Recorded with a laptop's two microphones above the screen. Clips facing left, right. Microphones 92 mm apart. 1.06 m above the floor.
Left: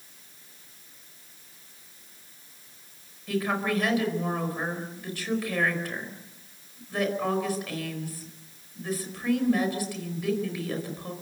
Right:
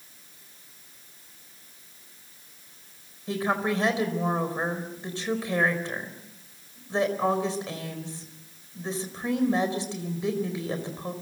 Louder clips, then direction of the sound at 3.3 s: Right 1 dB; 25° right (ahead or behind).